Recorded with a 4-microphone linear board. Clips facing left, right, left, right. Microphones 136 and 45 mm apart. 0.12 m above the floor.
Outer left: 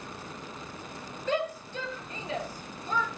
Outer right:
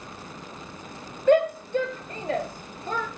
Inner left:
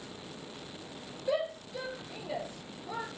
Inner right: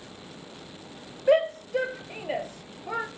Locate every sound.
1.3 s a shout: 55° right (ahead or behind), 1.9 m